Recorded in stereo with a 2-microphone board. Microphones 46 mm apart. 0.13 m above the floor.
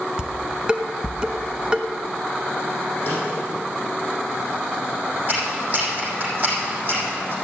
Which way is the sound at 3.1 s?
40° left (ahead or behind).